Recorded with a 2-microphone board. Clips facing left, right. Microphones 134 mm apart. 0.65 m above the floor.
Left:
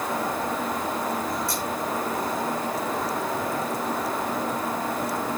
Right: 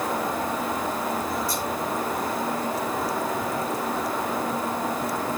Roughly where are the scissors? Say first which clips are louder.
Right 1 dB; left.